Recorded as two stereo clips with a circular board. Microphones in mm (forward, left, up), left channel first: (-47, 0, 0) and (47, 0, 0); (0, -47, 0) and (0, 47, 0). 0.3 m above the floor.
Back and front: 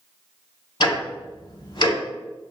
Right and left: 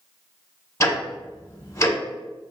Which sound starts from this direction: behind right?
Ticking, at 0.8 s.